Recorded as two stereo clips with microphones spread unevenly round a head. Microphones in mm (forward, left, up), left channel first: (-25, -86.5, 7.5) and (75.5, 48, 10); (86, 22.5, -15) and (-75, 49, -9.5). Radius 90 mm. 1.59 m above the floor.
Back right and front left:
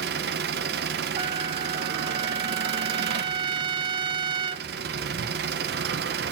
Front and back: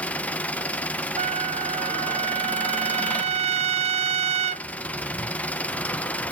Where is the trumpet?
120° left, 0.5 m.